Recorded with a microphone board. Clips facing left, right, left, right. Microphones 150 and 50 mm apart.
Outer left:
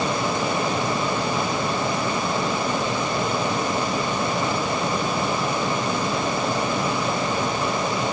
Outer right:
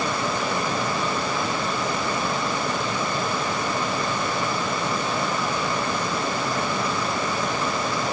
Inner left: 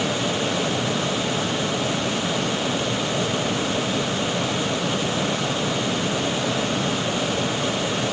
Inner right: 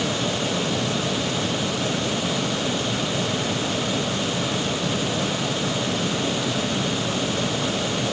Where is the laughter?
No laughter in this recording.